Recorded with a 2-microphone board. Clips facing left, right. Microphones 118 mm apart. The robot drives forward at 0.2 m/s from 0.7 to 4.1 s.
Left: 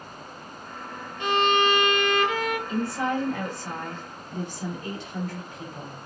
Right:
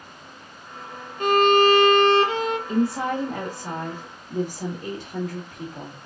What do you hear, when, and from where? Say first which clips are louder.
1.2 s a violin: right 6 dB; 45° right (ahead or behind), 0.5 m; by 2.6 s 30° right (ahead or behind), 0.7 m
2.7 s a woman speaking: right 5 dB; 65° right (ahead or behind), 1.7 m; by 6.0 s 55° right (ahead or behind), 1.8 m